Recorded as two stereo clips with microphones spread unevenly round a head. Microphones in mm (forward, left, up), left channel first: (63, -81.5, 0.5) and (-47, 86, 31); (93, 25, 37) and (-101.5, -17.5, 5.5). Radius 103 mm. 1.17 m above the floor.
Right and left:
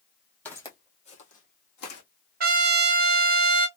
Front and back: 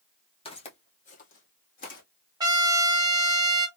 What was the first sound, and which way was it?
Footsteps, 35° left.